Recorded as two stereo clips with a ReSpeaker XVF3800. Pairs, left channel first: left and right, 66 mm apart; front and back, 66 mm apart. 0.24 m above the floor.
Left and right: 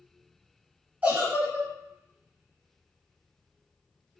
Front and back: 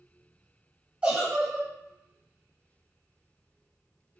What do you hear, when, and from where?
1.0 s a giggle: 125° right, 0.7 m